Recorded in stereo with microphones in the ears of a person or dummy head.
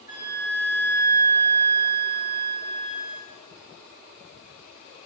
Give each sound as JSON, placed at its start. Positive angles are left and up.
{"t": 0.1, "sound": "a flute", "side_deg": 40, "distance_m": 1.8}